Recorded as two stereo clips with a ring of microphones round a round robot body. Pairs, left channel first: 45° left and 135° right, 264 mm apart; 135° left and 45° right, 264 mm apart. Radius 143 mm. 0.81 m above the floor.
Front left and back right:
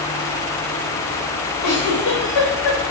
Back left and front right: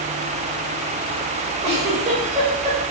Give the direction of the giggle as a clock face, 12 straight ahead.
11 o'clock.